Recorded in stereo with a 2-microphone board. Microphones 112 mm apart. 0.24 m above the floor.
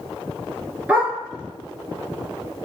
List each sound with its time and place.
0.9 s a dog barking: 10° right (ahead or behind), 1.2 m